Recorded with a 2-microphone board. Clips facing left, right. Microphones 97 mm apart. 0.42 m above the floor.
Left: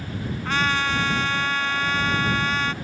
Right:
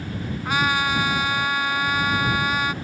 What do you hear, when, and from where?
0.5 s a trumpet: 10° right (ahead or behind)